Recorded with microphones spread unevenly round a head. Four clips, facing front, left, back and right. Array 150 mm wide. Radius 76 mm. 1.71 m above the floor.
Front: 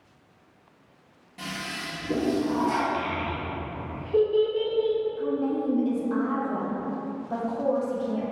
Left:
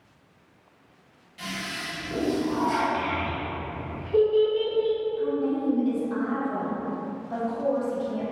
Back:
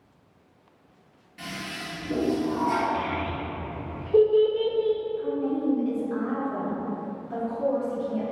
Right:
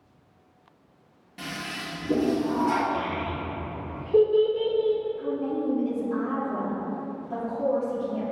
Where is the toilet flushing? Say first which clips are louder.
Even, front 1 dB; 60° right, 2.5 m.